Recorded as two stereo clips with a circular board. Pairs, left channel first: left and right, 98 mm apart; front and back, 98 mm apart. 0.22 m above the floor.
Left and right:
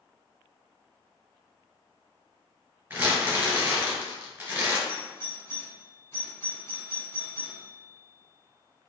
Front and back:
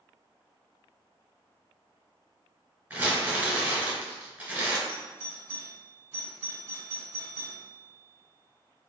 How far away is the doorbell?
About 1.7 m.